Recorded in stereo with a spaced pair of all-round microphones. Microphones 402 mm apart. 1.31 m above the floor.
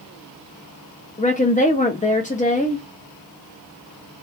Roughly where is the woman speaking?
Centre.